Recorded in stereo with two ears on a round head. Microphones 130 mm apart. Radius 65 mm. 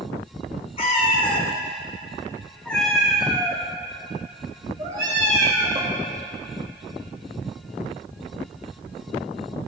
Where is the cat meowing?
40° left (ahead or behind), 1.3 m; by 6.0 s 30° right (ahead or behind), 2 m.